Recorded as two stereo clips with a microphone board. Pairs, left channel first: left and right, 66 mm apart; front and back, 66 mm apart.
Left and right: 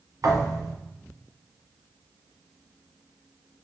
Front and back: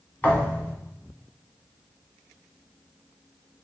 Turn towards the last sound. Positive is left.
turn(degrees=-65)